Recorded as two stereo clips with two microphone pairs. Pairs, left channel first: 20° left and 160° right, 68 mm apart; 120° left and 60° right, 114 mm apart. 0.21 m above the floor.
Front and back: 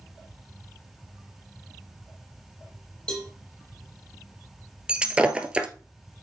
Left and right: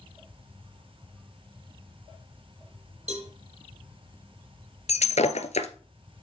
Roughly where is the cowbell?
Ahead right.